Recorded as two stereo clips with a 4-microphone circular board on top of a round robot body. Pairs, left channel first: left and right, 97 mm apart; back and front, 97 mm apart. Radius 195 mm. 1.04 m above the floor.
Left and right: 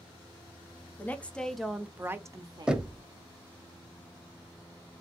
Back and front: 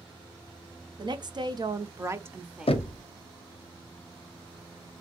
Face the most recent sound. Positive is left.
turn(degrees=-170)